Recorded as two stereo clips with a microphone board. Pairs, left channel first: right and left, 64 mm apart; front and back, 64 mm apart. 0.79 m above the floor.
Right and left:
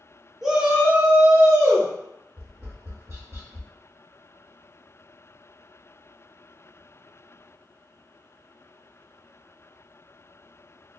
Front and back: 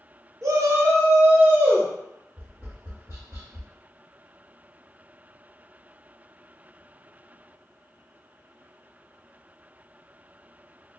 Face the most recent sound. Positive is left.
turn(degrees=135)